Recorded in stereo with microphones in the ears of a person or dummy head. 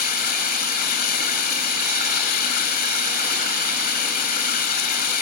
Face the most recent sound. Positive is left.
turn(degrees=55)  # may be behind; listen again after turning